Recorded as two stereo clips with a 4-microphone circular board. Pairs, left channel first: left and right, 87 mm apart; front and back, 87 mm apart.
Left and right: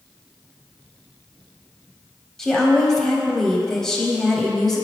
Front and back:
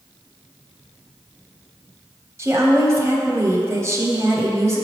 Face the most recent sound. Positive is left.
turn(degrees=170)